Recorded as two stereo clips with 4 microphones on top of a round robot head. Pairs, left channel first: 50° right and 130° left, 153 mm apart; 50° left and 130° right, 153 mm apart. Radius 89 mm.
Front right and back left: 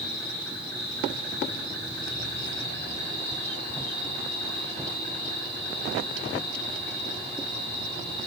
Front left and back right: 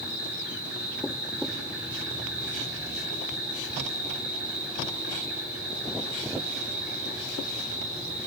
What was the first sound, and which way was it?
An insect, 55° right.